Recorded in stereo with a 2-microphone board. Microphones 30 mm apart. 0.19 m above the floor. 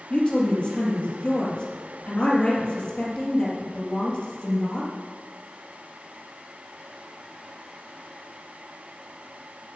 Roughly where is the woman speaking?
Left.